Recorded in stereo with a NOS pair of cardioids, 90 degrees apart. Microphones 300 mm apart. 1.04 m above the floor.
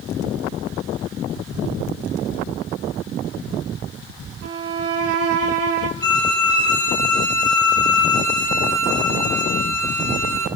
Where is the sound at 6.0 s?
10° left, 1.8 m.